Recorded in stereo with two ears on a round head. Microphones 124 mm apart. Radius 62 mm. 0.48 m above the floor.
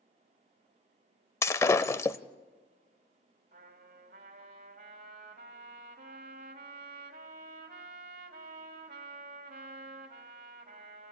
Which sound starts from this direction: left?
Breaking glass, at 1.4 s.